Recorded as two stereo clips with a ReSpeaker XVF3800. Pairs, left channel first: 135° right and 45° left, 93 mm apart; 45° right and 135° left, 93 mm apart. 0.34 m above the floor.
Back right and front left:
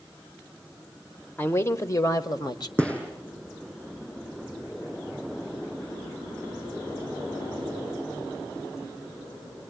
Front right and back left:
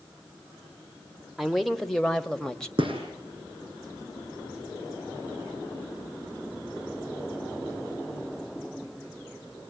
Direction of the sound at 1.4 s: 135° right.